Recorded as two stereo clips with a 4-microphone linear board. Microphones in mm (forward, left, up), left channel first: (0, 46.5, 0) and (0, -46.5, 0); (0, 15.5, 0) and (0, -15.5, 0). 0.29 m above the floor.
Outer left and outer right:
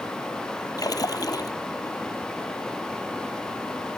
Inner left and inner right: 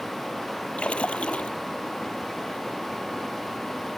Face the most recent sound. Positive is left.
turn(degrees=45)  # may be behind; listen again after turning